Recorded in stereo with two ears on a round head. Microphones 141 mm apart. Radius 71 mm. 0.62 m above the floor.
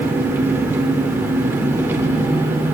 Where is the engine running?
15° right (ahead or behind), 0.8 m.